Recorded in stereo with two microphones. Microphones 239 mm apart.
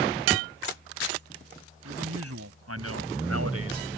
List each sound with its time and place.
1.9 s a man speaking: 85° right